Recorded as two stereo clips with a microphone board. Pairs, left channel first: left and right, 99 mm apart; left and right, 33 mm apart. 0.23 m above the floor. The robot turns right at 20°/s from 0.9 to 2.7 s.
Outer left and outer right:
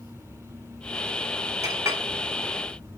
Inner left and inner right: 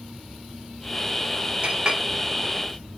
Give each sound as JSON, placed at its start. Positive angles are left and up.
{"t": 1.6, "sound": "a clink", "side_deg": -30, "distance_m": 0.6}